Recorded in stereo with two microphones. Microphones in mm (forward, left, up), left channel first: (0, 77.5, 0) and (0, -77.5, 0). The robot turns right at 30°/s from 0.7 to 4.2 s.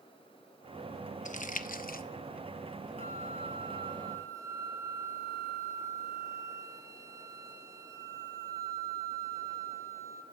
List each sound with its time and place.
1.2 s crumpling: 55° left (ahead or behind), 0.6 m; by 2.0 s 75° left (ahead or behind), 0.6 m
3.0 s a flute: 65° right, 1.0 m; by 10.2 s 25° right, 1.0 m